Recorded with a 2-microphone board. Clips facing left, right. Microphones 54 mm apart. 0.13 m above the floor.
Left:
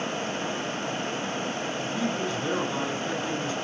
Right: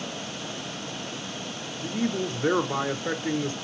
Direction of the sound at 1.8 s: 35° right (ahead or behind).